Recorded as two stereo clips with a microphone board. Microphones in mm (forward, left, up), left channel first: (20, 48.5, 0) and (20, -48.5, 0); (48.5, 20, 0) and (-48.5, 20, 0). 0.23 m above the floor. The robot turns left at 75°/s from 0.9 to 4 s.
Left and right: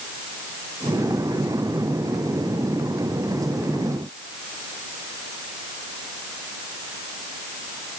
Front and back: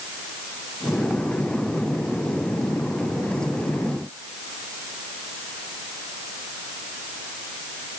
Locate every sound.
Only background noise.